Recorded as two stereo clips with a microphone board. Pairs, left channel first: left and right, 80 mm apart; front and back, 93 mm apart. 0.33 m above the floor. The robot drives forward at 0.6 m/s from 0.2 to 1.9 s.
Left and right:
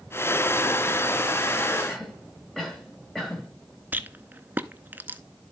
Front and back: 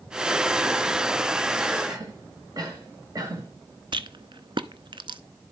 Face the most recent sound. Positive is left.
turn(degrees=-155)